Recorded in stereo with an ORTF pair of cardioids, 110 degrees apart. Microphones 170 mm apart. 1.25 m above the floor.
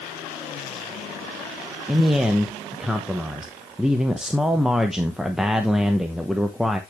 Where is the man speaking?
5° right, 0.9 m.